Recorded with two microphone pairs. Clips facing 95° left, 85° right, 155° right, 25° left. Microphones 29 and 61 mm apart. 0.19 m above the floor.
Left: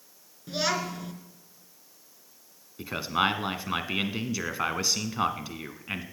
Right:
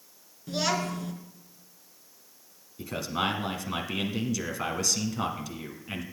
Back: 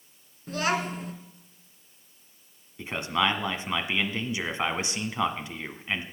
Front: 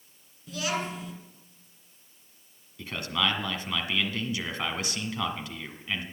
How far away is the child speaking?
About 2 m.